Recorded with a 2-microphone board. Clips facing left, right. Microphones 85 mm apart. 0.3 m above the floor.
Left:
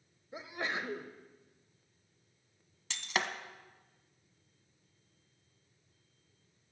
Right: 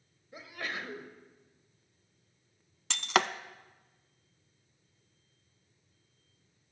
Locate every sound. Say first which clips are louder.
0.3 s a sneeze: left 2 dB; 20° left (ahead or behind), 0.9 m
2.9 s breaking glass: right 7 dB; 85° right, 0.5 m